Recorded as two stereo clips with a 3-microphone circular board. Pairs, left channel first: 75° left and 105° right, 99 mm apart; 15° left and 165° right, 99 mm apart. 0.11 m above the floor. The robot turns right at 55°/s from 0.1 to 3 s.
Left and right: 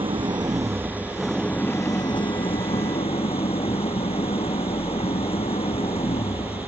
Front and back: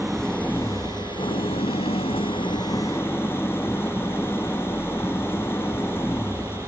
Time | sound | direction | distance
0.0 | an engine running | 75° right | ?